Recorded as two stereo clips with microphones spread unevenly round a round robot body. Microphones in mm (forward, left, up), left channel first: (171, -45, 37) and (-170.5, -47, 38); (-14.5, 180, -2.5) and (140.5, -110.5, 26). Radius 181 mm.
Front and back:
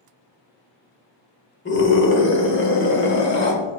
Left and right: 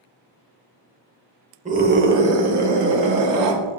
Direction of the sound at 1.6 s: Straight ahead.